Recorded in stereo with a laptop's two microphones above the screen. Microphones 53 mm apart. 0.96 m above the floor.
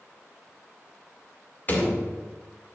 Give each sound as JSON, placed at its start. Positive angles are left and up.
{"t": 1.7, "sound": "a door slam", "side_deg": 35, "distance_m": 1.8}